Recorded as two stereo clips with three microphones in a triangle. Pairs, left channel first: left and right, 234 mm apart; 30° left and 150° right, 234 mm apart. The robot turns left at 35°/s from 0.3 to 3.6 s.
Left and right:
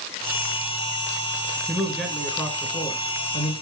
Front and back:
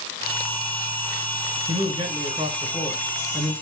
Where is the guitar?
No guitar in this recording.